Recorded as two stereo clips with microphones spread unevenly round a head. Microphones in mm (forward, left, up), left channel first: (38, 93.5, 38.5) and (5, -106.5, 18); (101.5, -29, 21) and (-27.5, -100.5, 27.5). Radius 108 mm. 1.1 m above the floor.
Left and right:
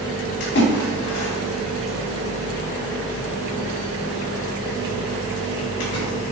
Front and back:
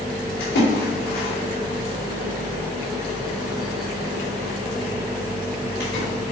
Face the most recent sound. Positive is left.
turn(degrees=45)